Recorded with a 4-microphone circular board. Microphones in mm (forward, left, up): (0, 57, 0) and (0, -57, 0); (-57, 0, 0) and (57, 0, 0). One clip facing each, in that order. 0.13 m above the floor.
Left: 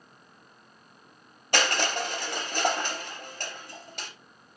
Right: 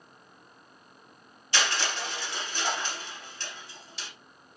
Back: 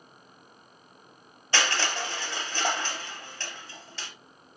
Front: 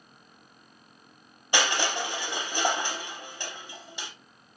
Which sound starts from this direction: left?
Crushing, at 1.5 s.